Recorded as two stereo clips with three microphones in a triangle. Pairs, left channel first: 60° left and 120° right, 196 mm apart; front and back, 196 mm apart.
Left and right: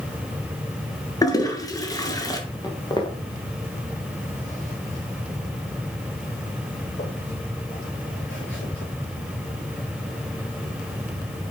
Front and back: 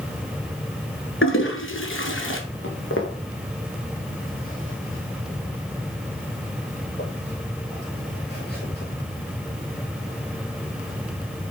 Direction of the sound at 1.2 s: 15° right.